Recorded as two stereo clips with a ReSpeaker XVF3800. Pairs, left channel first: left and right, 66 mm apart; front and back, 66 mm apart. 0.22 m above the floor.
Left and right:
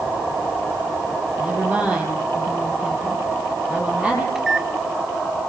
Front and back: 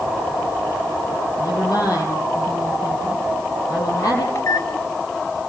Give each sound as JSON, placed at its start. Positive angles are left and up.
{"t": 1.4, "sound": "a woman speaking", "azimuth_deg": -20, "distance_m": 7.0}
{"t": 4.3, "sound": "a microwave", "azimuth_deg": -10, "distance_m": 1.1}